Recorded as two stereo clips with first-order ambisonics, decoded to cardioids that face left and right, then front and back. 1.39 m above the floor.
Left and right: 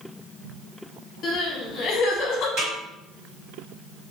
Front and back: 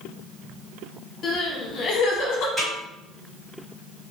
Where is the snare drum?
95° right, 1.8 m.